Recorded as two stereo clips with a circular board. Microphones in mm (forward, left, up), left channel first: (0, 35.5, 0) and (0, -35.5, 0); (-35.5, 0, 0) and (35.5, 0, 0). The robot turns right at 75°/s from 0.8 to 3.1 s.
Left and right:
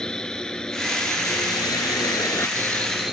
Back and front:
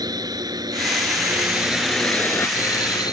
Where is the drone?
10° left; by 3.1 s 175° right.